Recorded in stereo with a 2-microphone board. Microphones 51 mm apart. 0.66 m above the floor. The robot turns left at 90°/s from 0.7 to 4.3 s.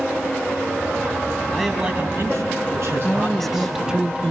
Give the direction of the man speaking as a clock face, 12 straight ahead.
12 o'clock.